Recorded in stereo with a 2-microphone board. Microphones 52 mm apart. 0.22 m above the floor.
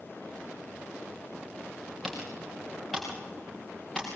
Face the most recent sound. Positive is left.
turn(degrees=5)  # may be behind; listen again after turning